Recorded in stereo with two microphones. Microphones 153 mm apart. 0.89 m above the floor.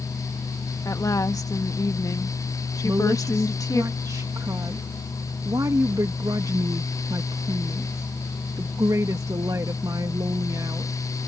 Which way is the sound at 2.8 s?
20° right (ahead or behind).